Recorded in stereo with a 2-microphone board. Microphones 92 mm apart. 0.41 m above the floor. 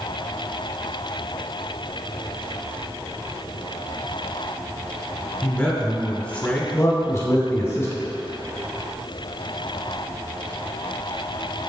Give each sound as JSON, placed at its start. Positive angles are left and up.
{"t": 5.4, "sound": "a man speaking", "side_deg": 10, "distance_m": 1.1}
{"t": 6.7, "sound": "a man speaking", "side_deg": 25, "distance_m": 1.0}